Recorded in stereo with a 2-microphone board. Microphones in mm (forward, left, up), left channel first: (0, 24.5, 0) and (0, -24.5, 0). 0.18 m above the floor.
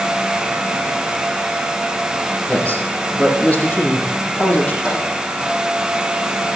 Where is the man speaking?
30° left (ahead or behind), 6 m.